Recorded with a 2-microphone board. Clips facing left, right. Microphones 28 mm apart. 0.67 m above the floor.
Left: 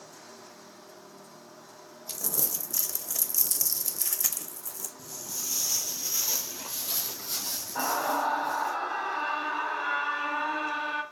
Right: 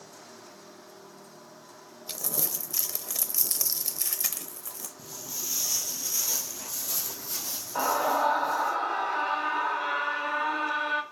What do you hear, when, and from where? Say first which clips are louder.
2.1 s crumpling: right 1 dB; 35° right (ahead or behind), 0.5 m
5.0 s footsteps: even; 20° right (ahead or behind), 0.8 m; by 8.8 s 45° left (ahead or behind), 1.7 m
7.8 s a scream: right 3 dB; 65° right (ahead or behind), 1.8 m